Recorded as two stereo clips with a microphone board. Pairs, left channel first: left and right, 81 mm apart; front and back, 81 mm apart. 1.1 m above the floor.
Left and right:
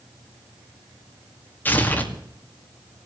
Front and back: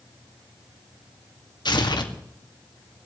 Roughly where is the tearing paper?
Ahead left.